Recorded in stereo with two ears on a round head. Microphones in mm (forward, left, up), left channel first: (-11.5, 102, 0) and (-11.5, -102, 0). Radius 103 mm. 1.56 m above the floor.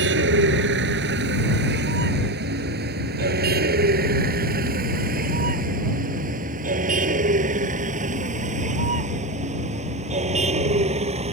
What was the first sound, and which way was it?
A vehicle, 55° right (ahead or behind).